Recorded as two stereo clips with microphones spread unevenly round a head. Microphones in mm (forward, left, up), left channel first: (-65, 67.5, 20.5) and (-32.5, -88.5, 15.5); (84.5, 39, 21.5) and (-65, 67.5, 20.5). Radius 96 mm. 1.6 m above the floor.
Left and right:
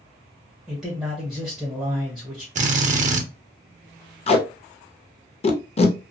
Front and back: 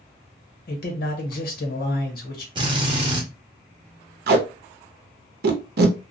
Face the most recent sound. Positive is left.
turn(degrees=155)